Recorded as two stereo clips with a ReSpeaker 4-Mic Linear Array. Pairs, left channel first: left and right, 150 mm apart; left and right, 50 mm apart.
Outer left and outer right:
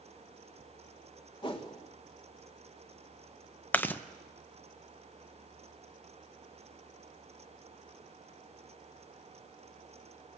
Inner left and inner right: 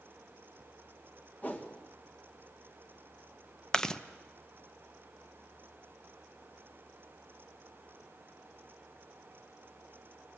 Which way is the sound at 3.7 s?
10° left (ahead or behind).